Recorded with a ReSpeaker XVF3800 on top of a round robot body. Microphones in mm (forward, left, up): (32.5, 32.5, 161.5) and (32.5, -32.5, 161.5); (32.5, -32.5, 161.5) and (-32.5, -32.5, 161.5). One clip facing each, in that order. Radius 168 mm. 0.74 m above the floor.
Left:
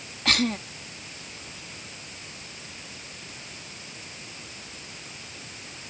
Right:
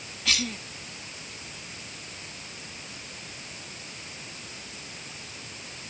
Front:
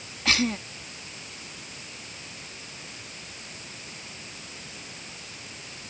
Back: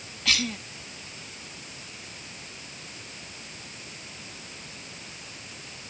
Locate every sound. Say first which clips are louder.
0.2 s a cough: left 6 dB, front 4 dB; 55° left